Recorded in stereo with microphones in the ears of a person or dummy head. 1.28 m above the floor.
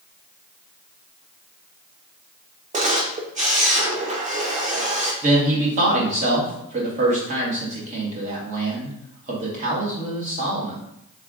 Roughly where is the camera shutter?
Right.